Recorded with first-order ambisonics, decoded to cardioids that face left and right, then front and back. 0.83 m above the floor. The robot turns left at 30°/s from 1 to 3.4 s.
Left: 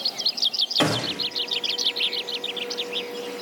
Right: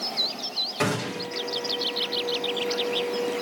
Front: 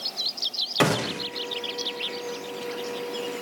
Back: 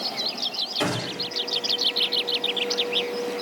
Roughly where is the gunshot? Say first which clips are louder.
Left 4 dB, front 3 dB; ahead.